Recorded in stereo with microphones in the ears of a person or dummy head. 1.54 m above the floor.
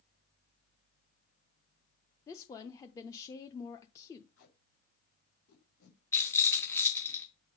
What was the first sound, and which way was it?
A woman speaking, 15° left (ahead or behind).